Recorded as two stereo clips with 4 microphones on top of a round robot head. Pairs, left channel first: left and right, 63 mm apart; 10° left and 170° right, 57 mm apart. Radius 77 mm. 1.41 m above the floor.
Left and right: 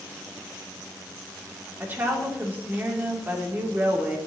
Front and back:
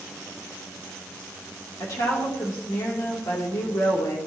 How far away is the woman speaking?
About 3 m.